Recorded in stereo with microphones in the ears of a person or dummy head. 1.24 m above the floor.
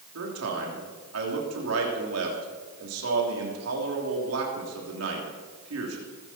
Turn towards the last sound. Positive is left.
turn(degrees=-85)